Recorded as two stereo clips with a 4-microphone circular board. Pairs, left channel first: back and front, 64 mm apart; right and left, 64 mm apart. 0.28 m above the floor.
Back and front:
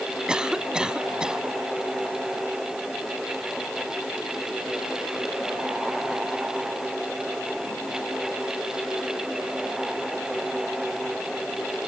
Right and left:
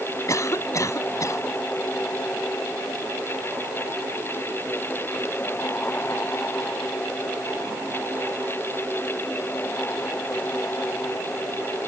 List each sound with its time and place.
0.3 s a cough: 75° right